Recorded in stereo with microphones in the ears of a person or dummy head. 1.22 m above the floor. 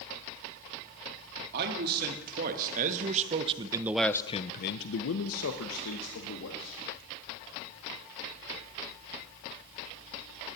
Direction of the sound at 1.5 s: 55° right (ahead or behind).